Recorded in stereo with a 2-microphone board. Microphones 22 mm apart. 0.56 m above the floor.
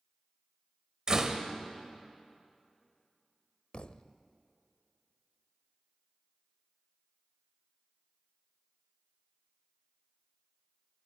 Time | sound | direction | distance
1.1 | a door slam | 35° right (ahead or behind) | 1.8 m
3.7 | a thud | 55° left (ahead or behind) | 0.6 m